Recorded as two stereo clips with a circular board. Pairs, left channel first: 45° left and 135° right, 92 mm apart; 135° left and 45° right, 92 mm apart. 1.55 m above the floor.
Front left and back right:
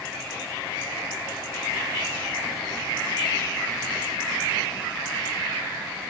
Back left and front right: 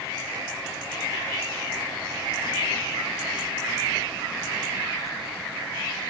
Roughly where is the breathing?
I don't hear breathing.